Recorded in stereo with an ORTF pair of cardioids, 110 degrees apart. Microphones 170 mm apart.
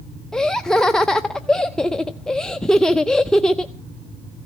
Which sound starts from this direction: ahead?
Laughter, at 0.3 s.